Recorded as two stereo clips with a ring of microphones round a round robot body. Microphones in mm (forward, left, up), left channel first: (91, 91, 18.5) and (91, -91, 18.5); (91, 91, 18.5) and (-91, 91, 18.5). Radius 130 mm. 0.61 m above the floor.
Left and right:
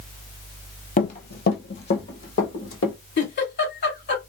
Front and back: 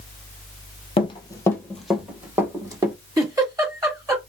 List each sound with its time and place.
1.0 s running footsteps: 55° left, 0.9 m; by 3.0 s 110° left, 1.5 m
3.2 s a giggle: 110° left, 2.0 m